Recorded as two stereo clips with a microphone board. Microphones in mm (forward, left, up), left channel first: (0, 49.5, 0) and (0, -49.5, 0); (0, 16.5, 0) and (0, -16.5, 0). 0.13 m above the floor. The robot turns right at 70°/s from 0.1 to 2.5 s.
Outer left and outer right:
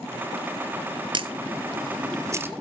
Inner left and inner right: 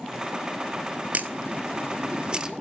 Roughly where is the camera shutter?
Right.